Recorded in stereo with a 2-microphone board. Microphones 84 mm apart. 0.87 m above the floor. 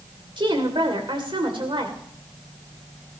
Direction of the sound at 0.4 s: 70° right (ahead or behind).